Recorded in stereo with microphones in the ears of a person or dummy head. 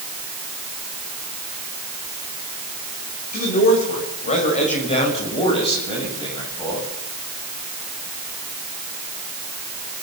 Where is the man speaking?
50° left (ahead or behind), 7 m; by 6.9 s 25° left (ahead or behind), 9 m.